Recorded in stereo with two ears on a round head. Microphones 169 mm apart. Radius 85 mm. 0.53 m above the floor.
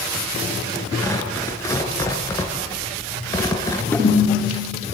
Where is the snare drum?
15° left (ahead or behind), 10 m.